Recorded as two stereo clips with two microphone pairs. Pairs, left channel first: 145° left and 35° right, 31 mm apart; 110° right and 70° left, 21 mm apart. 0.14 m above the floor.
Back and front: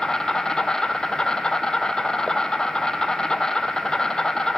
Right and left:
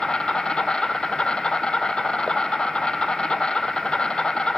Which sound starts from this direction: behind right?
An insect, at 0.0 s.